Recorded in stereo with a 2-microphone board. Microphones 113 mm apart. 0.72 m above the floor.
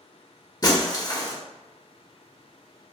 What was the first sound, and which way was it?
Breaking glass, 35° left (ahead or behind).